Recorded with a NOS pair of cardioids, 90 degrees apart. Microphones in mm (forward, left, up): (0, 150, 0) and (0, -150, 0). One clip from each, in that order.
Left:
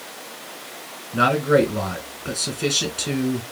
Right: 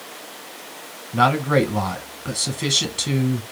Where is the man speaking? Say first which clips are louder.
Left 1 dB; 25° right, 1.6 m.